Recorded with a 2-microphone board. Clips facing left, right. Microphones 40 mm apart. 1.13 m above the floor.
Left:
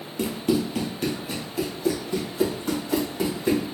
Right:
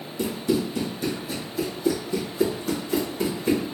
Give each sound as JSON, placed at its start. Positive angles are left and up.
{"t": 0.2, "sound": "running footsteps", "side_deg": 45, "distance_m": 1.6}